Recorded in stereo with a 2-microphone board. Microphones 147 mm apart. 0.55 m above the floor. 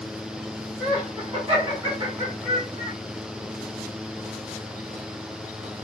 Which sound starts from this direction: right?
Laughter, at 0.8 s.